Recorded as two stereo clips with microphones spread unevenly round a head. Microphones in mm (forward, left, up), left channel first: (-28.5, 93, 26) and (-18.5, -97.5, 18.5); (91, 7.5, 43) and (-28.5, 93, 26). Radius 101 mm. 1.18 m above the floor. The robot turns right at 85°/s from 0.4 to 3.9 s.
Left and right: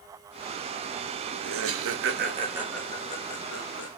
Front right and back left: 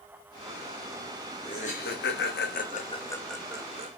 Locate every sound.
1.4 s laughter: 110° right, 0.8 m; by 3.9 s 100° left, 0.8 m